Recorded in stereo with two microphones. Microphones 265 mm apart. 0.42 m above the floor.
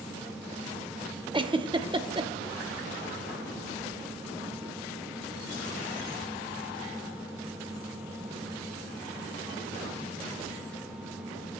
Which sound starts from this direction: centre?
A giggle, at 1.3 s.